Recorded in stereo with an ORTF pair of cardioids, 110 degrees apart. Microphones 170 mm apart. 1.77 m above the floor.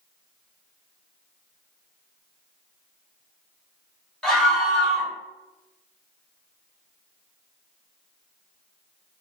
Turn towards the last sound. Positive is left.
turn(degrees=0)